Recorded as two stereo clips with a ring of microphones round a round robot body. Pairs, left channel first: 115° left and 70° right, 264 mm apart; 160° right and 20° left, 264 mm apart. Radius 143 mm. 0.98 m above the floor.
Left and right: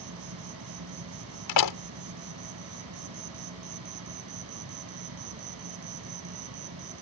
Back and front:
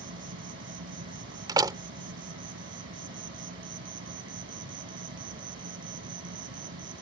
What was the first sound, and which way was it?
An insect, 30° right.